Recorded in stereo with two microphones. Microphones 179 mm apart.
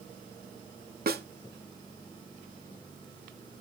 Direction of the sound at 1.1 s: 60° right (ahead or behind).